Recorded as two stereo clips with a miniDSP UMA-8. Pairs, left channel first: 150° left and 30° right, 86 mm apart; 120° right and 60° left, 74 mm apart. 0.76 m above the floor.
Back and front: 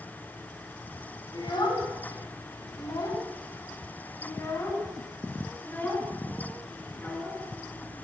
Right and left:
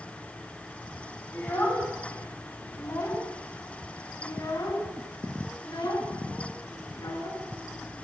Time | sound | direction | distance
1.3 | a child speaking | 175° left | 3.5 m